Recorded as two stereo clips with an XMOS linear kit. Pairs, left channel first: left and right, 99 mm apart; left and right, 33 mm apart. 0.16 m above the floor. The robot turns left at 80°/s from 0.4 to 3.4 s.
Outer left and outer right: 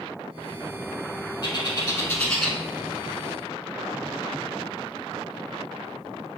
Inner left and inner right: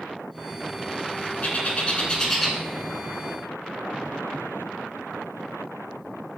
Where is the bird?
45° left (ahead or behind), 0.8 m; by 2.6 s 5° right (ahead or behind), 0.8 m.